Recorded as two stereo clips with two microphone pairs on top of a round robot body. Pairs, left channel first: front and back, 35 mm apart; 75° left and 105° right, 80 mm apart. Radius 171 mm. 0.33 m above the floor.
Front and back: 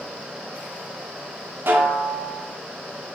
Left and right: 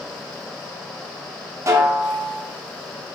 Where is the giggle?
No giggle in this recording.